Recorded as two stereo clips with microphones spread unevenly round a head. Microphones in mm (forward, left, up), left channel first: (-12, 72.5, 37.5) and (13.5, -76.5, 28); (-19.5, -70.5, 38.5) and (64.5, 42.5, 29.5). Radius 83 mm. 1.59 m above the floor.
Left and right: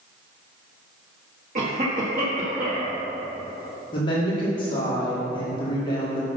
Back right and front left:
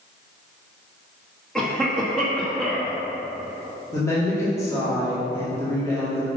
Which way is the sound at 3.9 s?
160° left.